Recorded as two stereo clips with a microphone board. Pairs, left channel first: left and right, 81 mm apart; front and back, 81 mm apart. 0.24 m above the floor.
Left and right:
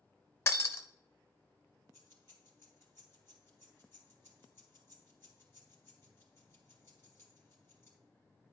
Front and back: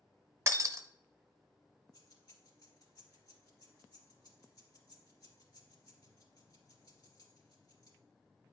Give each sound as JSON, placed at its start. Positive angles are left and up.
{"t": 0.5, "sound": "breaking glass", "azimuth_deg": 135, "distance_m": 0.7}
{"t": 1.9, "sound": "keys jangling", "azimuth_deg": 35, "distance_m": 3.0}